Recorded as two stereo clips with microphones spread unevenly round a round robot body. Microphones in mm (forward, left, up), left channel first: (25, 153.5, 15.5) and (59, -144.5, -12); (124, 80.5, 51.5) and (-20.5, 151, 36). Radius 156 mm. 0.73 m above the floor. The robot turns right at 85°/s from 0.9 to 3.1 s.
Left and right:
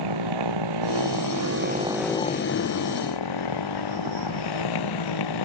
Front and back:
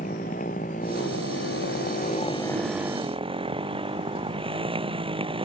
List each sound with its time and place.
0.0 s a motorcycle: 90° right; by 5.5 s 95° left